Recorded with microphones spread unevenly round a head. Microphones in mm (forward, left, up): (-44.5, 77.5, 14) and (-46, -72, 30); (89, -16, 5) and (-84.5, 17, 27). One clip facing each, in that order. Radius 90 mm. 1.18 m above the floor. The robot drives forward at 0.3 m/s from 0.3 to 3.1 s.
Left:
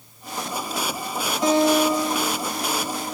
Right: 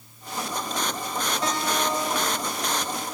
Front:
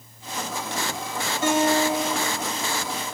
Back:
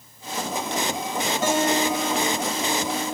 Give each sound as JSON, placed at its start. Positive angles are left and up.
{"t": 1.4, "sound": "a guitar", "azimuth_deg": 165, "distance_m": 5.0}